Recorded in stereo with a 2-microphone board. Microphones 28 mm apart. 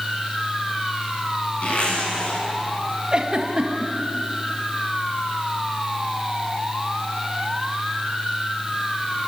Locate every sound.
1.6 s a zipper: 55° left (ahead or behind), 9 m
3.1 s a giggle: 35° right (ahead or behind), 2 m